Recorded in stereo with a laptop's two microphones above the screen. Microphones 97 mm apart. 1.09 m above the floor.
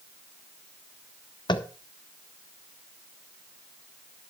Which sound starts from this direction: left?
Tapping, at 1.5 s.